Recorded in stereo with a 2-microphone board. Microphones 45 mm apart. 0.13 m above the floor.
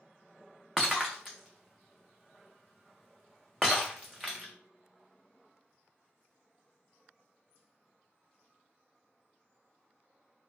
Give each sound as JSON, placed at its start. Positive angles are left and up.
{"t": 0.8, "sound": "breaking glass", "side_deg": 0, "distance_m": 1.0}